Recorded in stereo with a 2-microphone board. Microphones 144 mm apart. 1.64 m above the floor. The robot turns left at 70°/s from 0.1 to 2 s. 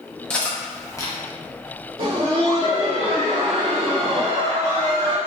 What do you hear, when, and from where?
0.3 s cutlery clinking: 10° left (ahead or behind), 0.8 m; by 1.2 s 25° left (ahead or behind), 0.8 m
2.0 s laughter: 40° right (ahead or behind), 0.8 m